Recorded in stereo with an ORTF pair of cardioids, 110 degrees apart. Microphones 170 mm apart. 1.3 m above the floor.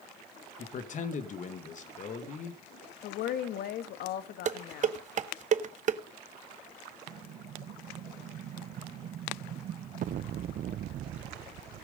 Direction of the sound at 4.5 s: 45° right.